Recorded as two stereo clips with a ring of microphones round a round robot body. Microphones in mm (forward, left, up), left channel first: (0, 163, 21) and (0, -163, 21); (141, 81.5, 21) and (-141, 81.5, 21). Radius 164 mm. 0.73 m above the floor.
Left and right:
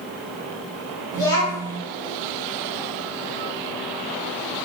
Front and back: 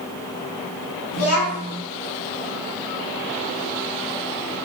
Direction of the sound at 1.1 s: 15° left.